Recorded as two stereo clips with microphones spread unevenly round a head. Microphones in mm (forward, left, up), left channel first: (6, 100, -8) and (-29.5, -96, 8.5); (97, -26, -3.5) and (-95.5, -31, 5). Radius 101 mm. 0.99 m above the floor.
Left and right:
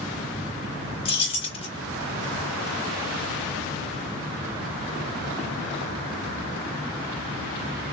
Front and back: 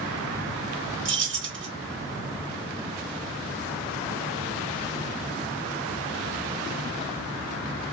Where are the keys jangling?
145° left, 1.3 m.